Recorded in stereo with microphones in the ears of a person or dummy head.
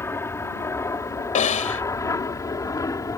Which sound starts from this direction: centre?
An aircraft, at 0.0 s.